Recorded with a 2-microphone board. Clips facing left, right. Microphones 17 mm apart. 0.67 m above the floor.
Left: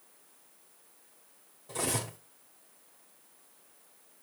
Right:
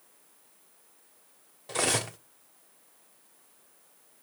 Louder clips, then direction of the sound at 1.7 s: Right 6 dB; 55° right (ahead or behind).